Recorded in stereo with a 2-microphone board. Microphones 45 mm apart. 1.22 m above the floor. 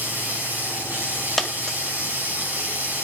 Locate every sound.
0.0 s running water: 45° right (ahead or behind), 9.5 m
1.4 s a dropped coin: 5° left (ahead or behind), 2.5 m